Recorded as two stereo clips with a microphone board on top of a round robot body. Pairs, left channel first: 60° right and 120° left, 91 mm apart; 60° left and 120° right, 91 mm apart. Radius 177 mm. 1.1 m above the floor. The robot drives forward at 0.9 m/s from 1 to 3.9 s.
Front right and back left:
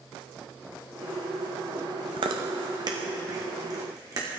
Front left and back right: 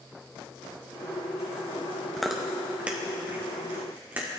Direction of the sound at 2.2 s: 145° left.